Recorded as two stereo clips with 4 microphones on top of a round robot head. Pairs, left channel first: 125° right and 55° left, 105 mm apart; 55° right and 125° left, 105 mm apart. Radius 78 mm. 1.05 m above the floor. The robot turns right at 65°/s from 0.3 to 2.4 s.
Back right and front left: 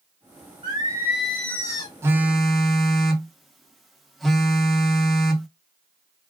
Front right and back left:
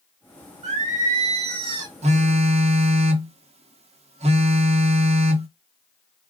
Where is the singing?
100° left, 0.7 m; by 1.9 s 175° right, 0.7 m.